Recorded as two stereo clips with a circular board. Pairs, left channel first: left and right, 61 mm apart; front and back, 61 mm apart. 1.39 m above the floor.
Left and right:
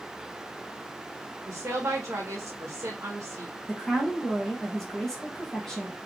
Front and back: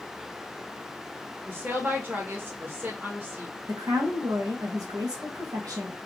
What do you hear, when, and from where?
1.5 s a woman speaking: 125° right, 1.4 m
3.7 s a woman speaking: 170° left, 1.4 m